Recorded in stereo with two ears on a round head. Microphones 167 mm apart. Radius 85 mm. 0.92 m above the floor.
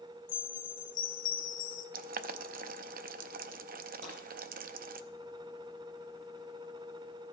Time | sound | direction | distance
0.3 | a chime | 70° left (ahead or behind) | 1.2 m
1.9 | boiling | 50° right (ahead or behind) | 0.5 m
4.0 | breaking glass | 40° right (ahead or behind) | 4.5 m